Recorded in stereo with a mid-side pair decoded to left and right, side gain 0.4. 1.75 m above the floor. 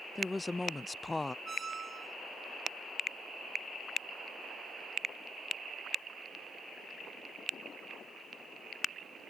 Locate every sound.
0.1 s a woman speaking: 20° left
1.4 s a squeak: 40° right